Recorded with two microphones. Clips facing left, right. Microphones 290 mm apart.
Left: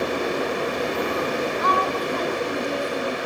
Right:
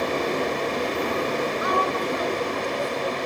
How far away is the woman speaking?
About 3.5 m.